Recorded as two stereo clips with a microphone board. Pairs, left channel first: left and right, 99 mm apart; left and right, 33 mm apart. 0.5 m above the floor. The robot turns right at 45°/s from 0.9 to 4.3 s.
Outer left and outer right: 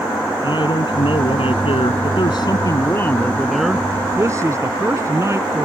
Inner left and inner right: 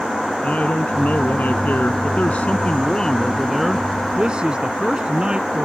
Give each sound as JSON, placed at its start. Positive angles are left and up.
{"t": 0.4, "sound": "a man speaking", "azimuth_deg": 60}